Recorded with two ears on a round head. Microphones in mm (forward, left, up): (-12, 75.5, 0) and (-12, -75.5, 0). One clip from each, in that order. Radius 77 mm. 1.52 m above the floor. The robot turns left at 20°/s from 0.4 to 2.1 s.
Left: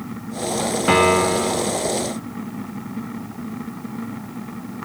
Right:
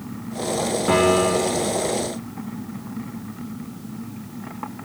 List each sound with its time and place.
0.9 s a piano: 50° left (ahead or behind), 0.5 m; by 1.6 s 45° left (ahead or behind), 0.5 m